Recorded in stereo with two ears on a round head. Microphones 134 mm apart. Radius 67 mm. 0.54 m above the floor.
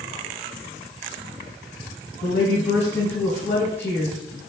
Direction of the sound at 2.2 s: 15° left (ahead or behind).